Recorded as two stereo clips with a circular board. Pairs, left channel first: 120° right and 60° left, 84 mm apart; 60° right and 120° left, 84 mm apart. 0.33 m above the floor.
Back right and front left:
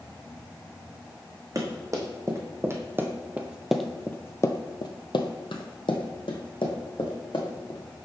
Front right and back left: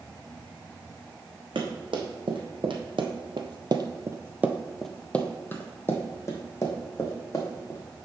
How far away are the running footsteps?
About 1.5 m.